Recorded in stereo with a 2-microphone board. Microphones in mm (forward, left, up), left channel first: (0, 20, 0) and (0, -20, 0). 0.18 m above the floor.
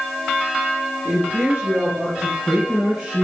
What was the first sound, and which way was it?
A woman speaking, 45° right (ahead or behind).